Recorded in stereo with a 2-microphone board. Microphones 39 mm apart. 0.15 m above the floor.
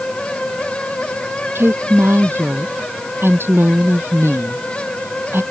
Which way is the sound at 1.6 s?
75° right (ahead or behind).